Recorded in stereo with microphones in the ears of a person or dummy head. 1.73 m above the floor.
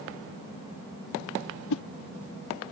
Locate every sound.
1.7 s a whoosh: 80° left